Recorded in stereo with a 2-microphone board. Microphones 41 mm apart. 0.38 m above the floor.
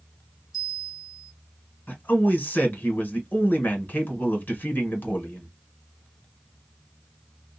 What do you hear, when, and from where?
0.5 s a bell: centre (ahead or behind), 1.5 m
1.9 s a man speaking: 45° left (ahead or behind), 1.2 m